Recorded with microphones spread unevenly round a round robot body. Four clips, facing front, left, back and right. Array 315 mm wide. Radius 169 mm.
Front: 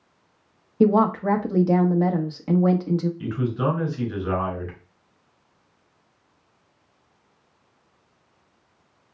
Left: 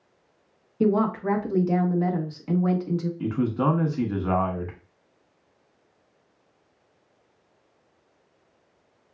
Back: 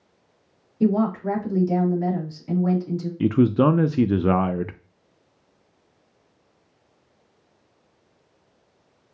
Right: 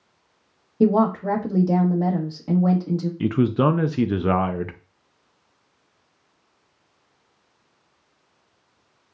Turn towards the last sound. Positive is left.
turn(degrees=-155)